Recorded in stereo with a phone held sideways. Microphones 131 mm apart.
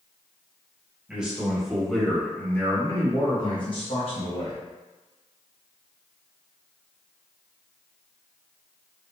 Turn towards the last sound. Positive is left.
turn(degrees=50)  # may be behind; listen again after turning